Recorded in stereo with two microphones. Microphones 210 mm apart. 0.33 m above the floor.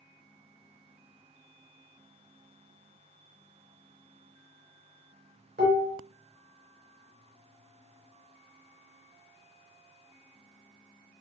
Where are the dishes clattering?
55° right (ahead or behind), 3 m.